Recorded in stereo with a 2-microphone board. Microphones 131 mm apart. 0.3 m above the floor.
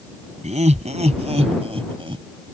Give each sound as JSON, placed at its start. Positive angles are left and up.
{"t": 0.4, "sound": "laughter", "side_deg": -60}